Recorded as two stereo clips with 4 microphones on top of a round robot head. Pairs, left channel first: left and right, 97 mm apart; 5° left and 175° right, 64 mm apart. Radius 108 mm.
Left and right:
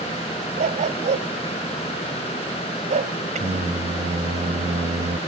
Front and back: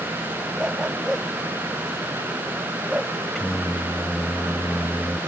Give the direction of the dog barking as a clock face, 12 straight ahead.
3 o'clock.